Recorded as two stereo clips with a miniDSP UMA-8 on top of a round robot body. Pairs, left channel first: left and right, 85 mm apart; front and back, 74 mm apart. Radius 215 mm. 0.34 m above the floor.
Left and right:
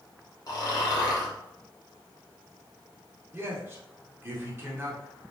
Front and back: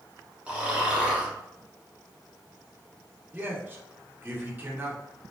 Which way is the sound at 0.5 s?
110° left.